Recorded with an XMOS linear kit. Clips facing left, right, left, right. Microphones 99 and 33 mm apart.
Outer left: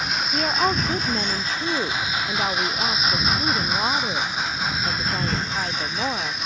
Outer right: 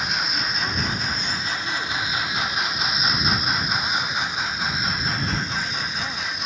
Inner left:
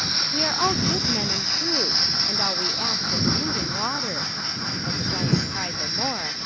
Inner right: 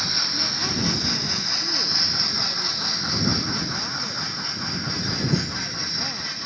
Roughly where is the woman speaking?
Left.